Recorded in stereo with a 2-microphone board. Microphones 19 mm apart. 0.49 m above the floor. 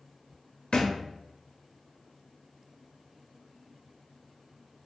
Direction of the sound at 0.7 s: 60° left (ahead or behind).